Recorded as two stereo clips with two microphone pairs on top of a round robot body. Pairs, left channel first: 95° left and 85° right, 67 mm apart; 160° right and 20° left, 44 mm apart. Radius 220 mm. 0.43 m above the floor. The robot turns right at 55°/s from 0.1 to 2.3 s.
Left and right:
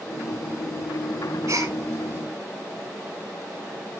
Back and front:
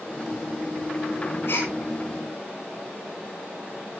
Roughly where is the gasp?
Behind right.